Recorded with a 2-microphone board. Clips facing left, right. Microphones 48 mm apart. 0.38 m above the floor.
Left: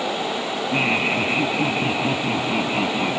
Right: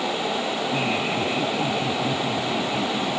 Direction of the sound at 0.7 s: 35° left (ahead or behind).